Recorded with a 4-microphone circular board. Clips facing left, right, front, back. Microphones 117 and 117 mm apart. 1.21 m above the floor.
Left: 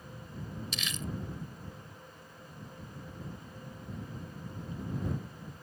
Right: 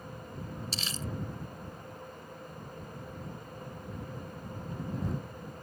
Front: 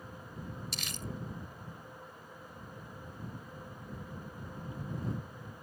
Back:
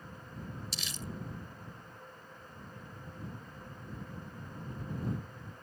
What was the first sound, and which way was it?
Crumpling, 35° right.